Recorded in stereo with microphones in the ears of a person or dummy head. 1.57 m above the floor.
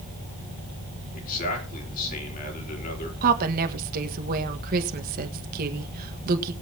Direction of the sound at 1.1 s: 50° left (ahead or behind).